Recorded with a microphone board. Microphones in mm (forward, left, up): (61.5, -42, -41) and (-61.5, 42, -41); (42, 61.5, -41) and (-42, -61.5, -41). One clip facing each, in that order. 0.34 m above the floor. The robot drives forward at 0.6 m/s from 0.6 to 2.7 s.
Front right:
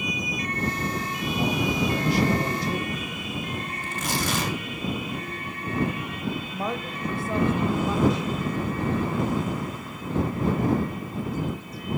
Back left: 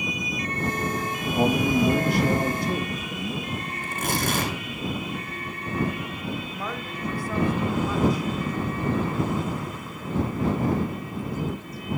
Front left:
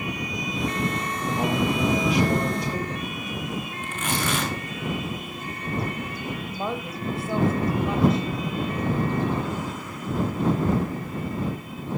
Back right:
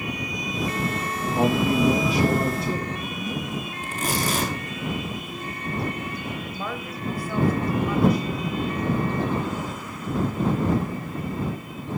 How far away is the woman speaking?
About 1.8 m.